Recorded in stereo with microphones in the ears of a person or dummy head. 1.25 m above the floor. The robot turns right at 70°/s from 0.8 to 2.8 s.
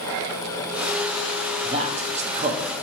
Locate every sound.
1.6 s a man speaking: 125° right, 0.5 m; by 2.7 s 50° right, 0.5 m